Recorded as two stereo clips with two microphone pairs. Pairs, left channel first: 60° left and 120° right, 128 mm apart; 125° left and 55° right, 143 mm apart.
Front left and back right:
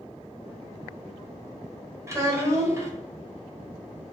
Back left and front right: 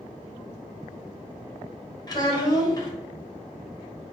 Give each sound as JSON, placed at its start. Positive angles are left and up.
{"t": 2.1, "sound": "a child speaking", "azimuth_deg": 180, "distance_m": 0.9}